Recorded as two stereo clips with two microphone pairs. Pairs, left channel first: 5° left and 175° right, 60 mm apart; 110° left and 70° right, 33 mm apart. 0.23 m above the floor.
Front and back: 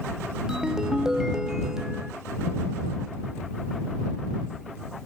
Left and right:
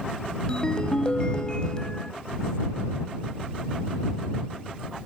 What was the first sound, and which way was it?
A ringtone, 115° left.